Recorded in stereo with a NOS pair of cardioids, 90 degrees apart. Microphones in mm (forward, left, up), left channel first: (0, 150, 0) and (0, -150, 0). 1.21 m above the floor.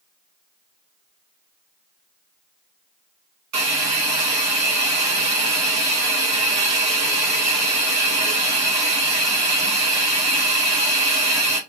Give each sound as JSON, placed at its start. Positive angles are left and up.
{"t": 3.5, "sound": "a hiss", "azimuth_deg": -65, "distance_m": 1.7}